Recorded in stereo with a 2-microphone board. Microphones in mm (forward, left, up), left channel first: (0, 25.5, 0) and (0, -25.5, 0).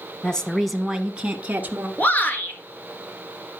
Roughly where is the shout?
Left.